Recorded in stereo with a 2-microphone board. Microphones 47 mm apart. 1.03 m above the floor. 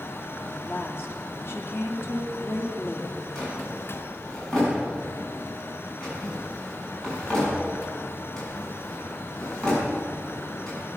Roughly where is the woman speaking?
Left.